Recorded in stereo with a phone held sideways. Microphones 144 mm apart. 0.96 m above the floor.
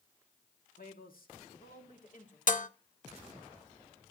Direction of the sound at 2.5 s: 65° left (ahead or behind).